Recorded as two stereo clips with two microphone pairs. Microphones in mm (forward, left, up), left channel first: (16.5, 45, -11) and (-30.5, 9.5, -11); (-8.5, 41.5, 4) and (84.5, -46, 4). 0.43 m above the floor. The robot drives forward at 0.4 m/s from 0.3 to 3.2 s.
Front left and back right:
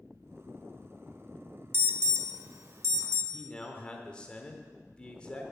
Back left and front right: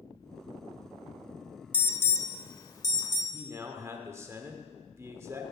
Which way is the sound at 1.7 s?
150° right.